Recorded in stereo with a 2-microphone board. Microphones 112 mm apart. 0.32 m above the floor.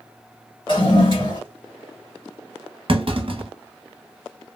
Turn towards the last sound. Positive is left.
turn(degrees=-55)  # may be behind; listen again after turning